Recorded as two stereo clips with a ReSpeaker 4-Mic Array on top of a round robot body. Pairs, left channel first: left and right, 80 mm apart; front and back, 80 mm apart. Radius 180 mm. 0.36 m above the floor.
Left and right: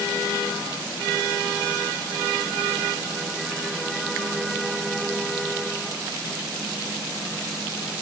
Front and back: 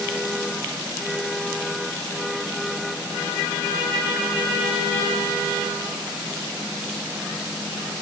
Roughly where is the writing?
I don't hear writing.